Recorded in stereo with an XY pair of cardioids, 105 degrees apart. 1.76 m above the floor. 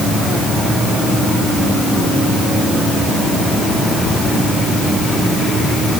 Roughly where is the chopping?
No chopping in this recording.